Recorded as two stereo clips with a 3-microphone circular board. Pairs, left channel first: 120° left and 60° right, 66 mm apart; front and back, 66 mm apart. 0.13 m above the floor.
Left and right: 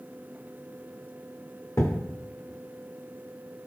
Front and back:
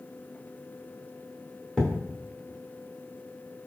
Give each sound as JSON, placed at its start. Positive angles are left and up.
{"t": 1.8, "sound": "a thud", "azimuth_deg": 85, "distance_m": 2.5}